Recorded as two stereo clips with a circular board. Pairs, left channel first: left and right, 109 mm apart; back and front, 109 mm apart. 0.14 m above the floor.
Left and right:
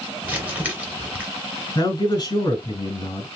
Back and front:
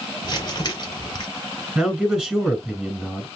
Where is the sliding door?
No sliding door in this recording.